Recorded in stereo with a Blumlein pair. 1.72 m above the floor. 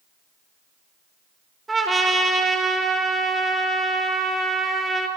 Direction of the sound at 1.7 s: 10° right.